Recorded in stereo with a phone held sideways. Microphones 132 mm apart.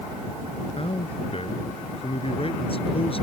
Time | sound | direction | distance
0.8 | a man speaking | 45° left (ahead or behind) | ?